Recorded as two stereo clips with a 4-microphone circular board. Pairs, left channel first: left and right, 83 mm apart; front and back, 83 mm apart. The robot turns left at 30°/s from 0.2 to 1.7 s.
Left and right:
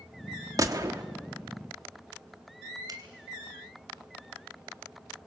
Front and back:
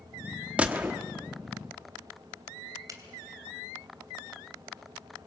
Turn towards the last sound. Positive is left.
turn(degrees=-130)